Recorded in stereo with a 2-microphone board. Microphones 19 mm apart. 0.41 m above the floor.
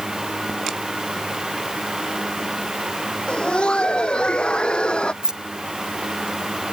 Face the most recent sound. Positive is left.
turn(degrees=-45)  # may be behind; listen again after turning